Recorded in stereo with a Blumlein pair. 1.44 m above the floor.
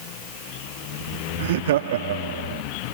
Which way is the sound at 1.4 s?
55° right.